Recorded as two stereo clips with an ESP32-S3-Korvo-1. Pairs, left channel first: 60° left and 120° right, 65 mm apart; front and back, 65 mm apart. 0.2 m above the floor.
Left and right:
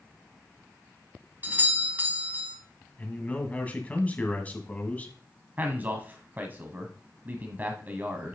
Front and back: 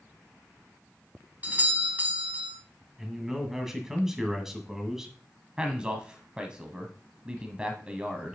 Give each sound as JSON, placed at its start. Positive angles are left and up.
{"t": 1.4, "sound": "a doorbell", "azimuth_deg": -145, "distance_m": 1.5}
{"t": 3.0, "sound": "a man speaking", "azimuth_deg": 105, "distance_m": 1.8}
{"t": 5.6, "sound": "a man speaking", "azimuth_deg": -120, "distance_m": 1.0}